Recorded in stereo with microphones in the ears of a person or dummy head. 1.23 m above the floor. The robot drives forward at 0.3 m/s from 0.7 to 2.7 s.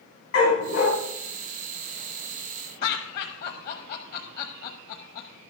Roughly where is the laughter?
Left.